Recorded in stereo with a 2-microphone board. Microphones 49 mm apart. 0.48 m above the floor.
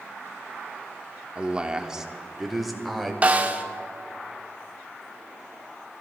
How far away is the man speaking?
About 1.0 m.